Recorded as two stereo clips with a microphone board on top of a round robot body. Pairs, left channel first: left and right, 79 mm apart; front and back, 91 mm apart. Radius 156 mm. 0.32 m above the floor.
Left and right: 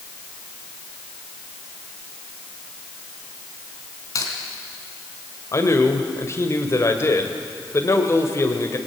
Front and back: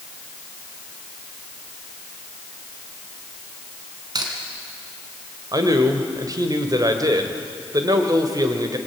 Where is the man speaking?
140° left, 2.5 m.